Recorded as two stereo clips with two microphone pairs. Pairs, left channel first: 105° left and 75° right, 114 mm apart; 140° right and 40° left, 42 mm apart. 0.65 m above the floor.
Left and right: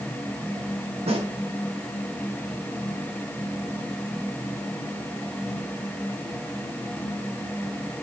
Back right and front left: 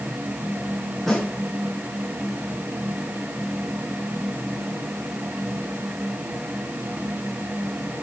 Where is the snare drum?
55° right, 9 m.